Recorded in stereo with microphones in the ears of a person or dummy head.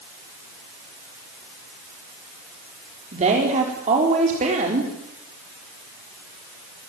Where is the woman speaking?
35° right (ahead or behind), 4 m.